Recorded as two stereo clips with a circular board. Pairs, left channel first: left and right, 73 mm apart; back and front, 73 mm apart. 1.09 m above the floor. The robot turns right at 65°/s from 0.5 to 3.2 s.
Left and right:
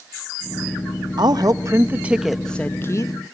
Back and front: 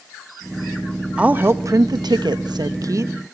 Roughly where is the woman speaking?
Right.